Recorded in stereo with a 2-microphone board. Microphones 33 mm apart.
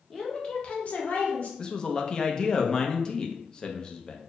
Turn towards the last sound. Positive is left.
turn(degrees=25)  # may be behind; listen again after turning